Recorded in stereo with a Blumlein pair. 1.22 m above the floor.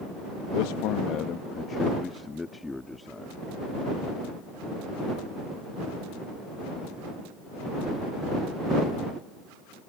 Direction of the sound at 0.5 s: 50° left.